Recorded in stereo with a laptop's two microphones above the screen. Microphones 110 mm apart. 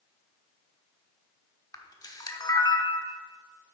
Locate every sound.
1.7 s a camera shutter: 35° left (ahead or behind), 0.8 m